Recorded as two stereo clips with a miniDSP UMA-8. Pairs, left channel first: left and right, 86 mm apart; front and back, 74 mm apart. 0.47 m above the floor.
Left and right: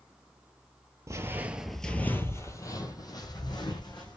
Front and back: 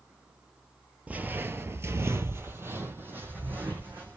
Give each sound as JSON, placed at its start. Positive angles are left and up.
{"t": 1.1, "sound": "footsteps", "azimuth_deg": -115, "distance_m": 0.6}